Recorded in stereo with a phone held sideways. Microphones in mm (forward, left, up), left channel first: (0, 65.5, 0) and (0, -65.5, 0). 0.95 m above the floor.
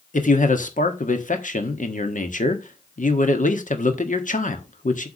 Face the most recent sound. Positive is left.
turn(degrees=80)